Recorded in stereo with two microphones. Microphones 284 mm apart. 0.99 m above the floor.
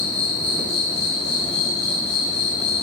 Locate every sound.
0.0 s an insect: 15° right (ahead or behind), 1.2 m